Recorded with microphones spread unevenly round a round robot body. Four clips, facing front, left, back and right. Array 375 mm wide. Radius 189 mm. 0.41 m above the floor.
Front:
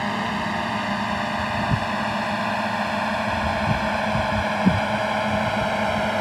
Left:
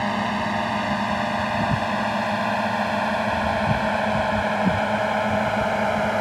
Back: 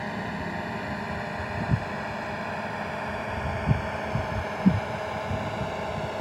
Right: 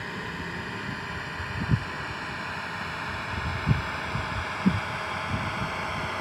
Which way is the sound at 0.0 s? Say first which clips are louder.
Left 12 dB, front 7 dB; 65° left.